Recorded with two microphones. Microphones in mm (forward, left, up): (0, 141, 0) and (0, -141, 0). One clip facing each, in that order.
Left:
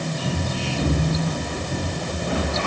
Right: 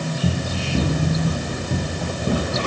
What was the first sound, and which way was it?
Running footsteps, 45° right (ahead or behind).